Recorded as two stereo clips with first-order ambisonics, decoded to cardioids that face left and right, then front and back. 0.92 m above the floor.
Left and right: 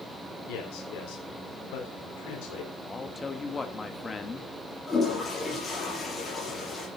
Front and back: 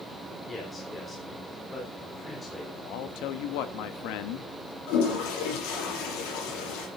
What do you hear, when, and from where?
0.5 s a man speaking: 80° left, 3.5 m
2.8 s a man speaking: 15° left, 1.4 m
4.9 s a toilet flushing: 15° left, 5.5 m